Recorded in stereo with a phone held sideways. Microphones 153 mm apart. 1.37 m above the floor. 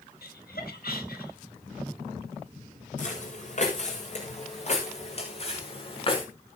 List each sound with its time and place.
0.2 s laughter: 80° left, 2.5 m
3.0 s footsteps: 55° left (ahead or behind), 6.5 m; by 6.3 s 40° left (ahead or behind), 5.5 m